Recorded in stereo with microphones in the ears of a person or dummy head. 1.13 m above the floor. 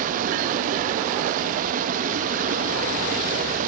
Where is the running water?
50° right (ahead or behind), 0.7 m.